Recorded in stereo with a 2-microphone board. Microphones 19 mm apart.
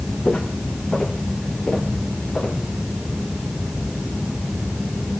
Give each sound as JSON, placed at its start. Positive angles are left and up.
{"t": 0.2, "sound": "footsteps", "side_deg": 70, "distance_m": 2.5}